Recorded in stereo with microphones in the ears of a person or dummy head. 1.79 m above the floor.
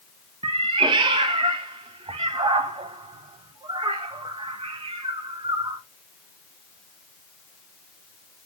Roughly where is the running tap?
No running tap in this recording.